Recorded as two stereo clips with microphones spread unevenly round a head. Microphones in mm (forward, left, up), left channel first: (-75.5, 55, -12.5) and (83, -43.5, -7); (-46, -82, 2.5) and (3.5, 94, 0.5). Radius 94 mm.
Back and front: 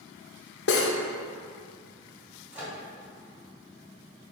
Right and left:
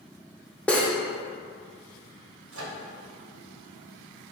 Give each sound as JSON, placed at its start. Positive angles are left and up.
{"t": 0.7, "sound": "cutlery clinking", "azimuth_deg": 170, "distance_m": 0.6}
{"t": 2.5, "sound": "a microwave", "azimuth_deg": 50, "distance_m": 1.0}